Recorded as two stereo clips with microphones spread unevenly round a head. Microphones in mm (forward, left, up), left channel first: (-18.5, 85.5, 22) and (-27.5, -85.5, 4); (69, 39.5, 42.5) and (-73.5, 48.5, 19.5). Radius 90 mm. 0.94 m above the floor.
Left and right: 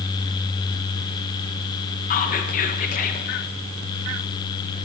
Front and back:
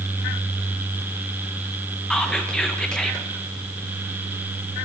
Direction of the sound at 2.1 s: 90° left.